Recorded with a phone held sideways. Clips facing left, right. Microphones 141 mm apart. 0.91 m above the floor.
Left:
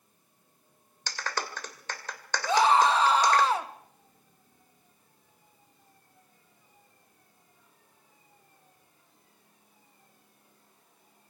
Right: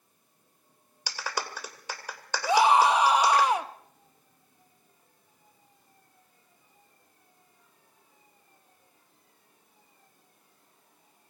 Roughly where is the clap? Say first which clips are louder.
Even; centre.